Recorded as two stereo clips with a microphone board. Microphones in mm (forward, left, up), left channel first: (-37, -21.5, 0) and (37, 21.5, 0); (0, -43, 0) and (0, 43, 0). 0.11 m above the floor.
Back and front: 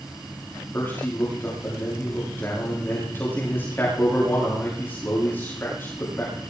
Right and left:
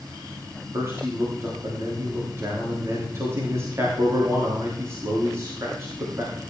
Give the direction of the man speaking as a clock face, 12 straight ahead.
7 o'clock.